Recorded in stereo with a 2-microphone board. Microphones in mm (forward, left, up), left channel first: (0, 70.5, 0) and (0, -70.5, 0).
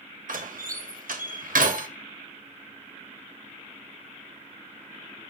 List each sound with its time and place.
0.3 s a door slam: 85° right, 0.7 m